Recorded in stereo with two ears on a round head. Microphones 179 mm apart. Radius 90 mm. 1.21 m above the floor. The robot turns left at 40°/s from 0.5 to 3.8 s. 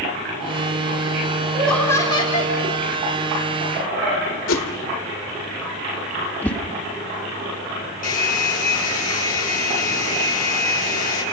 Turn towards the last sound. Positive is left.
turn(degrees=40)  # may be behind; listen again after turning